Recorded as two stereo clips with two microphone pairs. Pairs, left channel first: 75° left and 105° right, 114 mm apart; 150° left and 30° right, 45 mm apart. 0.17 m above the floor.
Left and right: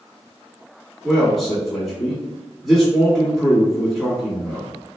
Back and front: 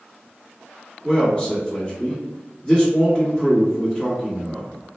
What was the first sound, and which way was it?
A man speaking, 165° left.